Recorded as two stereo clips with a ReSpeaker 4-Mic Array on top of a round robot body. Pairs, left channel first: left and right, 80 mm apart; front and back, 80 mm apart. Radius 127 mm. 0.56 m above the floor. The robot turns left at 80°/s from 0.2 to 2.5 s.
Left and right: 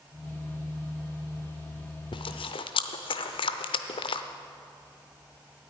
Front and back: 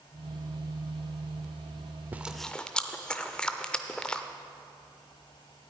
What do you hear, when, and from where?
2.1 s chewing: 110° left, 0.5 m; by 4.2 s 80° left, 0.5 m